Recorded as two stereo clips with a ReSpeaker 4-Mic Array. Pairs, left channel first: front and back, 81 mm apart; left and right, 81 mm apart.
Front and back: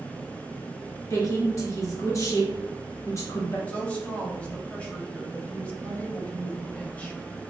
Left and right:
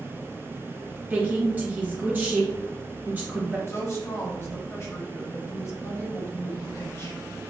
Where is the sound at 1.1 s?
30° right, 1.5 m.